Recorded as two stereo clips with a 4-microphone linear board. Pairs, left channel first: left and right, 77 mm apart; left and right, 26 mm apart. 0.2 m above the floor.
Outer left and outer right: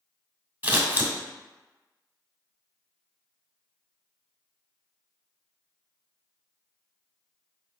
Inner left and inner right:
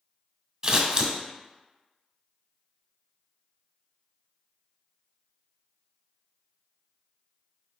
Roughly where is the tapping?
No tapping in this recording.